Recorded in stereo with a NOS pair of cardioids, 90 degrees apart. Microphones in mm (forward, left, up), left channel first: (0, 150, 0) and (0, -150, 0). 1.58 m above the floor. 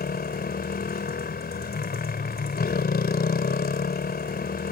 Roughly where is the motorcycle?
Ahead left.